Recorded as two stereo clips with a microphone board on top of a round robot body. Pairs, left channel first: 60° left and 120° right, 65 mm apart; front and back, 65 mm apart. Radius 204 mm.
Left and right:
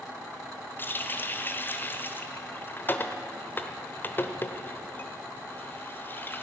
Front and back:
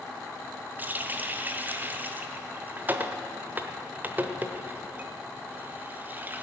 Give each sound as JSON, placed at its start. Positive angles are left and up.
{"t": 0.8, "sound": "a running tap", "azimuth_deg": 120, "distance_m": 1.1}